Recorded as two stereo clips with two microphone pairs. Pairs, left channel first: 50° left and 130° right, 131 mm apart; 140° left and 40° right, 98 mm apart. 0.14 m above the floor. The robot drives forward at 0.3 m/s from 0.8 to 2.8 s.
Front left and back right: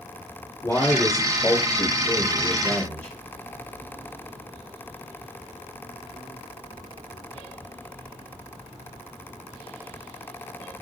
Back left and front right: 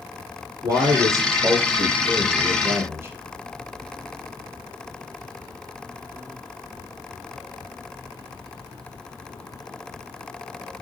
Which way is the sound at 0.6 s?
10° right.